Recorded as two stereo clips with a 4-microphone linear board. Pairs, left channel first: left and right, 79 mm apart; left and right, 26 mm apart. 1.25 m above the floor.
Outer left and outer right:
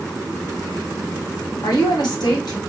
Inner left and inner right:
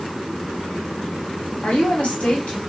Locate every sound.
1.6 s a woman speaking: 65° left (ahead or behind), 1.2 m